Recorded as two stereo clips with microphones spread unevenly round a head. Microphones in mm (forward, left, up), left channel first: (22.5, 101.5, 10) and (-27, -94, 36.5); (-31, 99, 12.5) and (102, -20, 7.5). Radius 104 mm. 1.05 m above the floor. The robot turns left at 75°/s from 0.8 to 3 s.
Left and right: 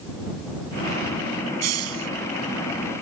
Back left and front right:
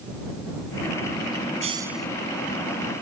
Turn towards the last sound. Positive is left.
turn(degrees=155)